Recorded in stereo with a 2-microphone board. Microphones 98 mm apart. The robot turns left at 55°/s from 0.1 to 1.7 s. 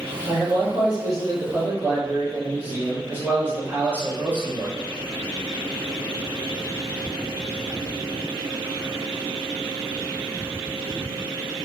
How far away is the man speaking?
About 1.3 m.